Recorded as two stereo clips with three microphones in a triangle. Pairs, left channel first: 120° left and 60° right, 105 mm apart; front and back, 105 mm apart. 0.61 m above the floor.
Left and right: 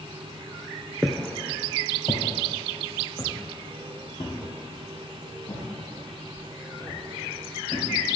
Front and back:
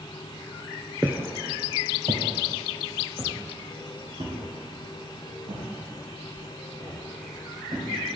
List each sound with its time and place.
1.0 s footsteps: 150° right, 0.5 m; by 7.9 s 170° left, 4 m